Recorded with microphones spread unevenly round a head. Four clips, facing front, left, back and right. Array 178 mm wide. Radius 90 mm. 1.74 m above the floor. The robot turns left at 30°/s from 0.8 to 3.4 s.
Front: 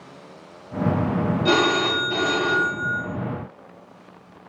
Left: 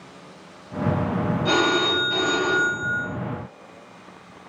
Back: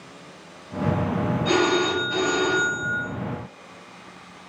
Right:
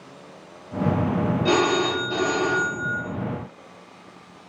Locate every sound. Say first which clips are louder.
1.4 s a phone ringing: even, even; 40° right, 1.5 m; by 3.0 s 90° right, 1.5 m